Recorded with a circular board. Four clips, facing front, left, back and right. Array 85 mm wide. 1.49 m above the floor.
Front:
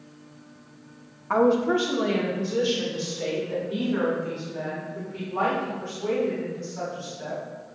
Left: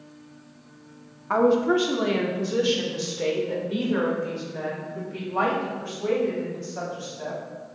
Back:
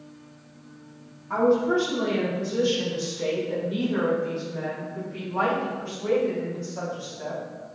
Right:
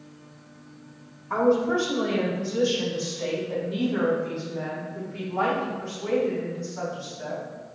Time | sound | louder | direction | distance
1.3 | a woman speaking | left 2 dB, front 1 dB | 55° left | 1.1 m